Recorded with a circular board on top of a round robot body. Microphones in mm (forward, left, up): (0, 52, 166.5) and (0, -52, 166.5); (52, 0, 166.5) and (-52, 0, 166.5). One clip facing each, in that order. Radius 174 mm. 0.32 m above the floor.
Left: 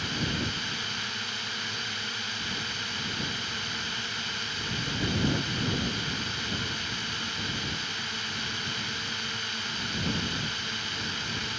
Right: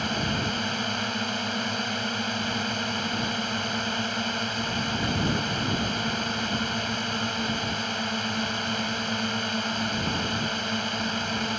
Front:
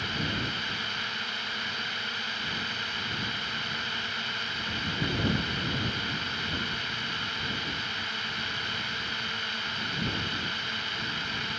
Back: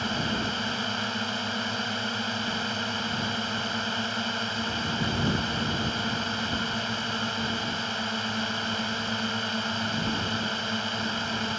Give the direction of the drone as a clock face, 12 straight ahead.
4 o'clock.